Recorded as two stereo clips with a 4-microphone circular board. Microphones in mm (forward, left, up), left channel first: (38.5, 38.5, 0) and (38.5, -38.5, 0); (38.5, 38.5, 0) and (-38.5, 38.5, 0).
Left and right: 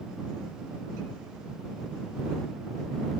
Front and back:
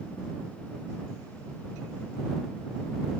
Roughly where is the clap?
I don't hear a clap.